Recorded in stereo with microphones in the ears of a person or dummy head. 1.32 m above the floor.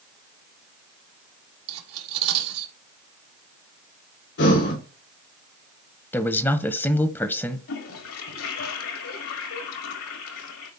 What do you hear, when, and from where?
1.7 s cutlery clinking: 75° right (ahead or behind), 1.9 m
4.4 s breathing: 60° left (ahead or behind), 5 m
6.1 s a man speaking: 10° left (ahead or behind), 0.7 m
7.7 s a toilet flushing: 70° left (ahead or behind), 1.5 m